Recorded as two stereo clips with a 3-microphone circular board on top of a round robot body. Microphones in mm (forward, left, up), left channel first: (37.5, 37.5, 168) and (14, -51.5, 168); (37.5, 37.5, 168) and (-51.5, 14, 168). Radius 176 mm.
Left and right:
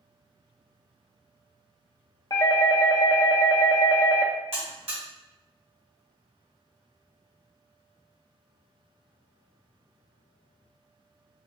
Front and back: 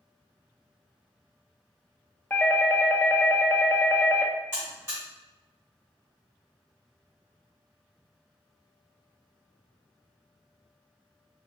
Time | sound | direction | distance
2.3 | a doorbell | 75° left | 0.8 m
4.5 | a buzzer | 95° right | 1.1 m